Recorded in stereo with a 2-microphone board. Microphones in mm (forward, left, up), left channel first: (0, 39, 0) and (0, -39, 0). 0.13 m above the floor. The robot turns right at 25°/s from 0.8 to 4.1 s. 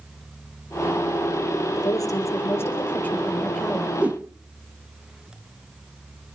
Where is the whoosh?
15° right (ahead or behind), 1.4 m.